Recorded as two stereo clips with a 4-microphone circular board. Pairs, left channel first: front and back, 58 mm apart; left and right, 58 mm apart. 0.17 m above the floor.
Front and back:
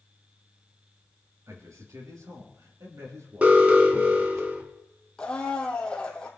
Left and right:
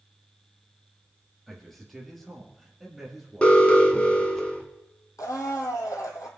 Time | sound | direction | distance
1.5 | a man speaking | straight behind | 3.5 m
3.4 | an alarm | 140° left | 1.5 m
5.2 | a blender | 75° left | 1.5 m